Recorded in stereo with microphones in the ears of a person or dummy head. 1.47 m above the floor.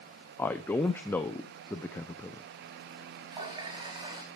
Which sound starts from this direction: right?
A running tap, at 3.3 s.